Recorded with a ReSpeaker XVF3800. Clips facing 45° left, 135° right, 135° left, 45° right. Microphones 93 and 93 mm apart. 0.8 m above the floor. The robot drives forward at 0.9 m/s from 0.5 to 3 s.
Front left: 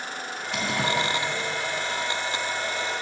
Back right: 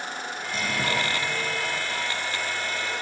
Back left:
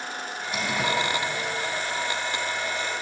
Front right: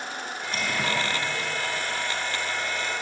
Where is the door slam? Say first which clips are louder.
Front left 2 dB, back left 2 dB; 55° left, 5.5 m; by 0.9 s 60° left, 5.5 m.